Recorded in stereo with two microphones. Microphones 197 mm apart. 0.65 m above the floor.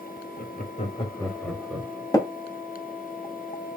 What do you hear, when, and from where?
0.4 s laughter: 50° left (ahead or behind), 1.2 m; by 2.0 s 15° right (ahead or behind), 1.4 m
2.1 s tapping: 20° left (ahead or behind), 1.0 m